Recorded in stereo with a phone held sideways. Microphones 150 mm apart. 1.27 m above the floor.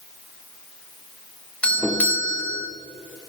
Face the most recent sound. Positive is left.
turn(degrees=10)  # may be behind; listen again after turning